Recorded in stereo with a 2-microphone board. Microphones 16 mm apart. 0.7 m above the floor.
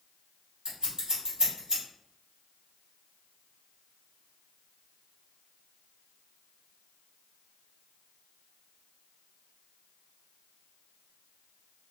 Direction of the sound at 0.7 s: 60° right (ahead or behind).